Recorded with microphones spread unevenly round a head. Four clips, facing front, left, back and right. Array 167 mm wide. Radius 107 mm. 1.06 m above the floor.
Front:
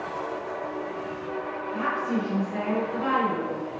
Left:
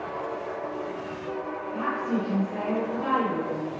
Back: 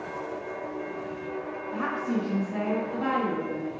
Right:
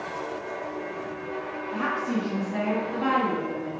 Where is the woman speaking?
120° right, 1.8 m.